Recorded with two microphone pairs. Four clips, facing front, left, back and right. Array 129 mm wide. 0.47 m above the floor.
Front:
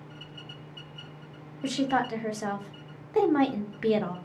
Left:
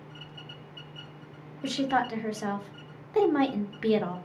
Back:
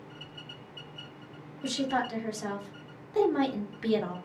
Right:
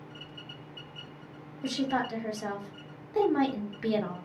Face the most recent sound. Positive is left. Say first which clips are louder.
# left 3 dB, front 3 dB
turn(degrees=45)